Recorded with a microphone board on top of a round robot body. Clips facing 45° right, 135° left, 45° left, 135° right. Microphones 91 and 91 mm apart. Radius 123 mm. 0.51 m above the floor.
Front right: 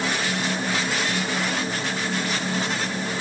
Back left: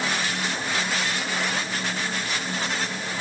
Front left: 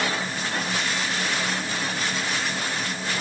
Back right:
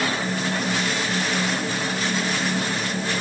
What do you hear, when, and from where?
Only background noise.